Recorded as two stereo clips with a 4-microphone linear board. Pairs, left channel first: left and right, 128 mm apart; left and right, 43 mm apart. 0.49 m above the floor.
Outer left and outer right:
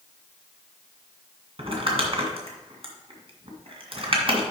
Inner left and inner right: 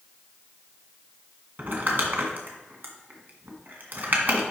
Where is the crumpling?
45° right (ahead or behind), 1.7 m.